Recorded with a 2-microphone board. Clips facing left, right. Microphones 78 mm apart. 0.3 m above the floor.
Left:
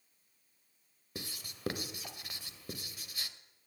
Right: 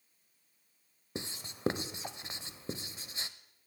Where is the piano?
No piano in this recording.